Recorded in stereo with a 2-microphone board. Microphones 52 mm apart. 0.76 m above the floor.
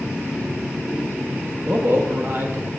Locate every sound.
1.6 s a man speaking: 40° right (ahead or behind), 0.5 m